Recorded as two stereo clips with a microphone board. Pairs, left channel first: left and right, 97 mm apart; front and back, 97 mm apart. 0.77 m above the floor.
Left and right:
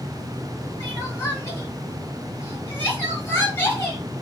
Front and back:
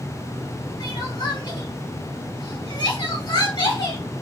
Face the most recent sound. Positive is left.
turn(degrees=25)